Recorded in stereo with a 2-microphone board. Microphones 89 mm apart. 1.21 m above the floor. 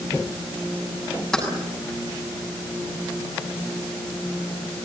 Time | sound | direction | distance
1.3 | keys jangling | 5° left (ahead or behind) | 7 m